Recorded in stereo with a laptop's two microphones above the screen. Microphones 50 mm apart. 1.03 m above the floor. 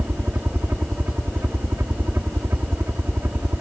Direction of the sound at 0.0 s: 50° right (ahead or behind).